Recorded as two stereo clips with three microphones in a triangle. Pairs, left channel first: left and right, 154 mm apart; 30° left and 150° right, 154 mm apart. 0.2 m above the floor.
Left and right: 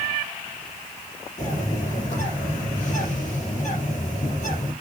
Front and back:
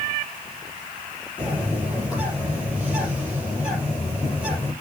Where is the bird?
125° left, 6 m.